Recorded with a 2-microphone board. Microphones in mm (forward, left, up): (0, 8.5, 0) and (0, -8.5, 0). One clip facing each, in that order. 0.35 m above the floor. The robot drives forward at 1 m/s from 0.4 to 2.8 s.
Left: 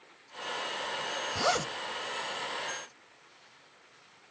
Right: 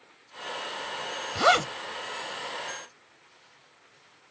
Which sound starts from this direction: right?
A zipper, at 1.4 s.